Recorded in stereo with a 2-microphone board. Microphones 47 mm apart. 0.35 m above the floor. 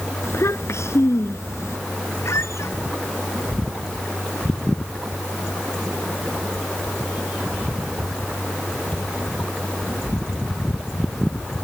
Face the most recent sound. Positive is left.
turn(degrees=75)  # may be behind; listen again after turning